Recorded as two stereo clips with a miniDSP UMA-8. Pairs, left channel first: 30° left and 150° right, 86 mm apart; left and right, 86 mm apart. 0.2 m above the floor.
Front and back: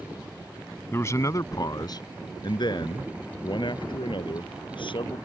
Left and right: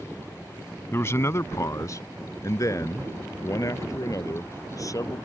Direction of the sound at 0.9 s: 60° left.